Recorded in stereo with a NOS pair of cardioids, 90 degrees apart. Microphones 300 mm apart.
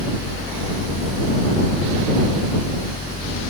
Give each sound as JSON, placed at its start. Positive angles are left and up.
{"t": 0.0, "sound": "a fan", "azimuth_deg": 20}